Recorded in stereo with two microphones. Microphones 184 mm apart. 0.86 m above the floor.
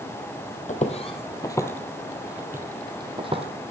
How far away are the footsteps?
About 1.2 m.